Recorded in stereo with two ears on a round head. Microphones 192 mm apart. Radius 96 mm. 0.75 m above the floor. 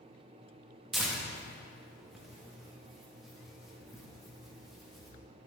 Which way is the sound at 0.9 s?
Centre (ahead or behind).